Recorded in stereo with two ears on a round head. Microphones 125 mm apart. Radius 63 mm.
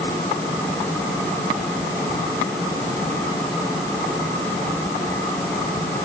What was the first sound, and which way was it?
Only background noise.